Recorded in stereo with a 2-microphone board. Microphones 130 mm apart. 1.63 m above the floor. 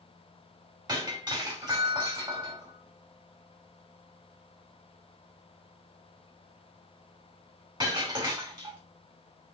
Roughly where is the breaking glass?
Right.